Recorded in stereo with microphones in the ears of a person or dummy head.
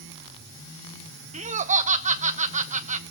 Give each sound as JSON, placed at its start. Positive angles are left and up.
{"t": 1.3, "sound": "laughter", "side_deg": -35, "distance_m": 0.8}